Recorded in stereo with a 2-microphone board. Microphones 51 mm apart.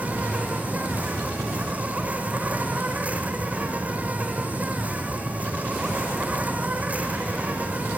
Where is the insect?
30° right (ahead or behind), 2.5 m.